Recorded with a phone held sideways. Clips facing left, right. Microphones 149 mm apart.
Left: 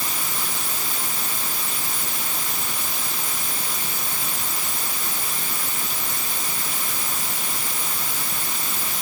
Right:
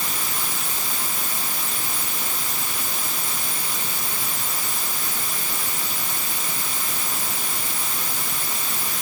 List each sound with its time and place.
Only background noise.